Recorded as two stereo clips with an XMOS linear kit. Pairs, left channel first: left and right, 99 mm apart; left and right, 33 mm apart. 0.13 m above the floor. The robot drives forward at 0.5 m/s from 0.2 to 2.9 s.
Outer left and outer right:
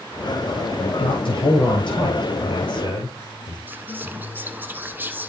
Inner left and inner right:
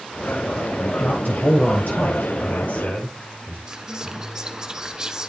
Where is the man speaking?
60° left (ahead or behind), 2.5 m; by 3.6 s 55° left (ahead or behind), 3 m.